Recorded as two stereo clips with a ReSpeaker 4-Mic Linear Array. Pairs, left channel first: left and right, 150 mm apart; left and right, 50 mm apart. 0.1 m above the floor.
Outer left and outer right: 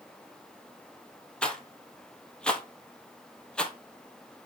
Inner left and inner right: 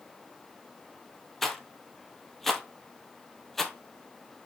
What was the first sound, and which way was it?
A rattle, 5° left (ahead or behind).